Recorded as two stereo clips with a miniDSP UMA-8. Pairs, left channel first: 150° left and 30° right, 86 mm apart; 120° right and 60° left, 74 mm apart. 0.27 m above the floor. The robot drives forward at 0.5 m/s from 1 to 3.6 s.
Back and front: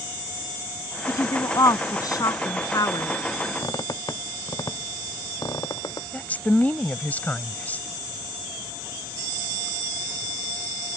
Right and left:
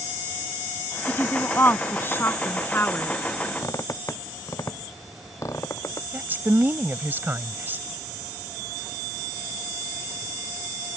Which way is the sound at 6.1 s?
95° left.